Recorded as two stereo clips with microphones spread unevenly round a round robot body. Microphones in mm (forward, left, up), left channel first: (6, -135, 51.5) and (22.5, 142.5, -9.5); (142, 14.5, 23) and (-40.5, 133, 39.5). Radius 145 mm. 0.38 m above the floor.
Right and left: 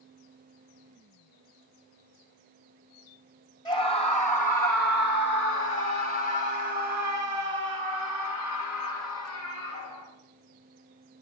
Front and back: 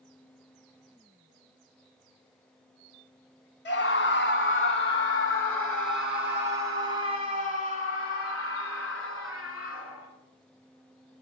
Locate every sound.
3.6 s a scream: 15° right, 2.0 m; by 10.1 s 70° right, 4.5 m